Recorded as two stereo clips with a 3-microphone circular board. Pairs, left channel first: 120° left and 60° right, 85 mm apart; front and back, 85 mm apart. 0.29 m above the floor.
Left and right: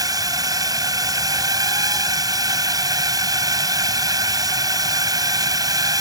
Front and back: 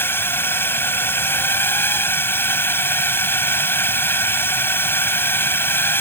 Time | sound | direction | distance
0.0 | a drone | 55° right | ?